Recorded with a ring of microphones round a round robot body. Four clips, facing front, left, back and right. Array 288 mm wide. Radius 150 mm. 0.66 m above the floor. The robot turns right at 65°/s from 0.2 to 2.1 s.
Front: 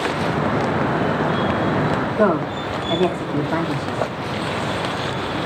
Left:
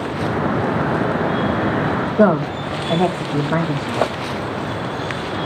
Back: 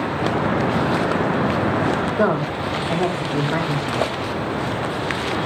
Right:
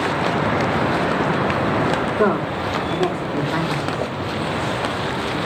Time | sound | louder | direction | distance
2.2 | a woman speaking | left 7 dB, front 1 dB | 100° left | 4 m